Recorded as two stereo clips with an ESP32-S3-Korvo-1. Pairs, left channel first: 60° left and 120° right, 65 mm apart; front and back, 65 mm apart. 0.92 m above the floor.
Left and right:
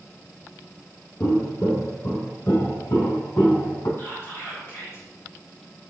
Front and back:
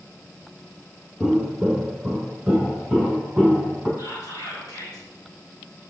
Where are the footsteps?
85° left, 1.4 m; by 3.9 s 95° left, 3 m.